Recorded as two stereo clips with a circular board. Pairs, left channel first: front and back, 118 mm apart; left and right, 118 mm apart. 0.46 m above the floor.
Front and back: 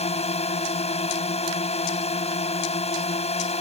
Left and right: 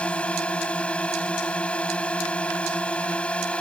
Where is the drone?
10° left.